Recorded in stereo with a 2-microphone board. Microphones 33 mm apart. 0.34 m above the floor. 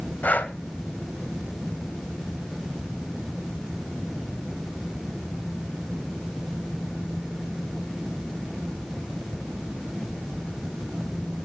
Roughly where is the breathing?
Left.